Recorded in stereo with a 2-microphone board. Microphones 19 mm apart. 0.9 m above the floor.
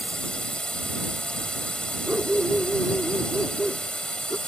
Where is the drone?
60° left (ahead or behind).